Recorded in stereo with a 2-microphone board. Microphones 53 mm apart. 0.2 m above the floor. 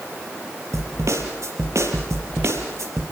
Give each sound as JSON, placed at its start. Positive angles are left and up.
{"t": 0.7, "sound": "a snare drum", "side_deg": -65, "distance_m": 5.0}